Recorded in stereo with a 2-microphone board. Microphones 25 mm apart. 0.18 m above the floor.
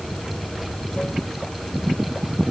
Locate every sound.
0.0 s running water: 50° left (ahead or behind)